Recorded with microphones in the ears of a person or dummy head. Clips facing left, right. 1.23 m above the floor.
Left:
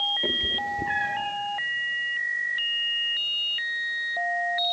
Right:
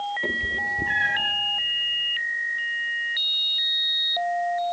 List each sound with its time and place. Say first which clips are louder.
0.2 s a cat meowing: left 1 dB; centre (ahead or behind), 2 m; by 1.4 s 25° right (ahead or behind), 1.0 m